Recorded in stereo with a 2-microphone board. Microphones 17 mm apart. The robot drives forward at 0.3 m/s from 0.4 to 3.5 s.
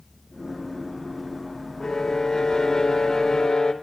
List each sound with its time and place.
1.8 s a violin: 35° left (ahead or behind), 1.9 m; by 3.7 s 40° left (ahead or behind), 1.8 m